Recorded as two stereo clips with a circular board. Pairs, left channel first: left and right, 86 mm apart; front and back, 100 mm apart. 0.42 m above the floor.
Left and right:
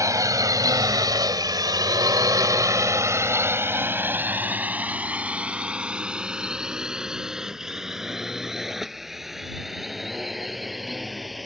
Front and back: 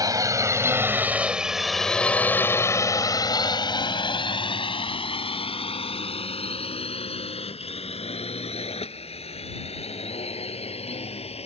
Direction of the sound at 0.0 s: 135° right.